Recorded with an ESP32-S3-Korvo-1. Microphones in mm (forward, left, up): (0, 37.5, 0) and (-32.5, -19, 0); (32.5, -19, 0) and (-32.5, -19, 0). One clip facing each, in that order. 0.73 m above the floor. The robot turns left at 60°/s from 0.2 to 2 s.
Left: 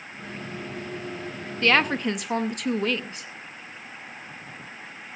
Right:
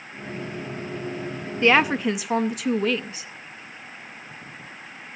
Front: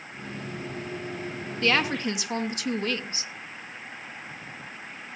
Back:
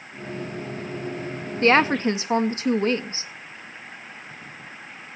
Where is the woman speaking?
Straight behind, 0.6 m; by 3.3 s 155° left, 0.6 m.